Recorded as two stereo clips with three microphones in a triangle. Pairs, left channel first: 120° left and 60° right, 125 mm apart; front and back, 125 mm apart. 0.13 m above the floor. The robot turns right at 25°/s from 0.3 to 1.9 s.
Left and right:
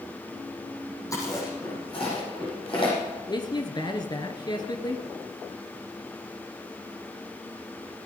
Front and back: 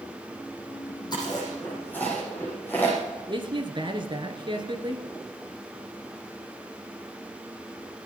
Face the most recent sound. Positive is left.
turn(degrees=155)